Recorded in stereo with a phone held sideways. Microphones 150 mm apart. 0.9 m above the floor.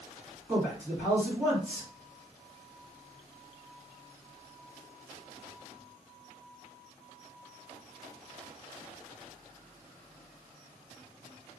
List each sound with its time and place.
0.5 s a man speaking: 20° right (ahead or behind), 1.5 m